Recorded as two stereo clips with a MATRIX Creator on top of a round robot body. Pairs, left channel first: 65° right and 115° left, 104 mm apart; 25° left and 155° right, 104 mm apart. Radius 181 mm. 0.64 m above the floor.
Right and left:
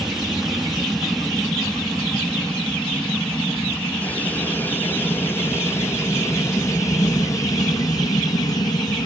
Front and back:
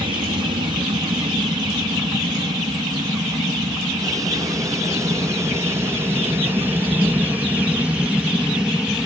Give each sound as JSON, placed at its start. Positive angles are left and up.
{"t": 0.0, "sound": "an aircraft", "azimuth_deg": -160}